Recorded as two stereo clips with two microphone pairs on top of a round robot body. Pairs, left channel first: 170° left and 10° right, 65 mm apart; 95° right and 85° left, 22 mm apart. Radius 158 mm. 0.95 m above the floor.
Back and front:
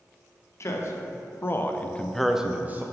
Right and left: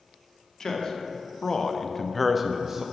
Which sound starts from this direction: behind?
A man speaking, at 0.6 s.